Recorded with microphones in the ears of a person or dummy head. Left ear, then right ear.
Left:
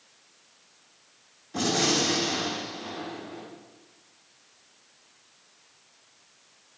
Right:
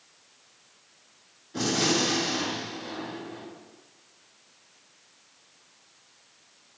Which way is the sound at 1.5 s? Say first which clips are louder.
Left 1 dB; 40° left (ahead or behind).